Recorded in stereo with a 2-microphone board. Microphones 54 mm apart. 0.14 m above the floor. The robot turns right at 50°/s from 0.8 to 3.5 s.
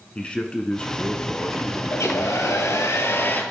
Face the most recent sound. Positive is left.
turn(degrees=145)